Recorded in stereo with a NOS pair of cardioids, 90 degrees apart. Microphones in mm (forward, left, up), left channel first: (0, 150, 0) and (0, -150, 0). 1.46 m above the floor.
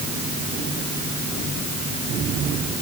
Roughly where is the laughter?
I don't hear laughter.